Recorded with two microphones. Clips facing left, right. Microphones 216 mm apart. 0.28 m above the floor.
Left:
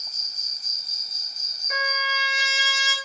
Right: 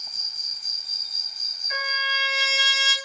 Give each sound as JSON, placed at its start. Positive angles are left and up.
{"t": 0.0, "sound": "an insect", "side_deg": 45, "distance_m": 0.8}
{"t": 1.7, "sound": "a trumpet", "side_deg": 60, "distance_m": 3.0}